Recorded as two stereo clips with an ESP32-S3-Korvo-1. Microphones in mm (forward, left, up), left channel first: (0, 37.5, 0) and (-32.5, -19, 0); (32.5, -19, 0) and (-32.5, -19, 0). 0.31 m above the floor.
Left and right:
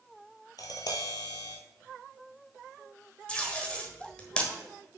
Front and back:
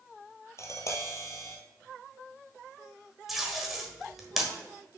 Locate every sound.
0.6 s tapping: 40° left, 1.2 m
3.3 s tape being pulled: 95° left, 1.2 m